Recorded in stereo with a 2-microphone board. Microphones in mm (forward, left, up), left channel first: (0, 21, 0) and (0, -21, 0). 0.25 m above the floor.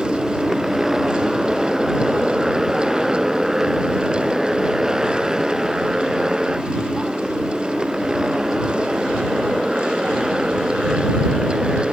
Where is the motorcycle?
10° right (ahead or behind); by 11.9 s 20° right (ahead or behind).